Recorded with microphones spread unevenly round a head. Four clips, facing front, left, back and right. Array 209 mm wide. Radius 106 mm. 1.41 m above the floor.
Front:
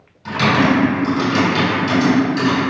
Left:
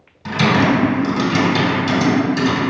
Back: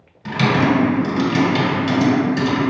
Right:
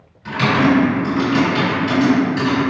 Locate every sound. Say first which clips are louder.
0.2 s typing on a keyboard: even, front 2 dB; 120° left, 1.6 m